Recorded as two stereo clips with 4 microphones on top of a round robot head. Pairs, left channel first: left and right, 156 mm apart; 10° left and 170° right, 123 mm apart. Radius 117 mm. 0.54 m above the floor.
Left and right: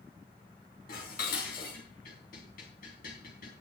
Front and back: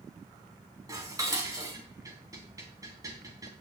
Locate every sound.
0.9 s dishes clattering: 130° left, 3.5 m